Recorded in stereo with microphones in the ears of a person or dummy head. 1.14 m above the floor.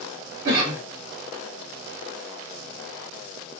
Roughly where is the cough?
Right.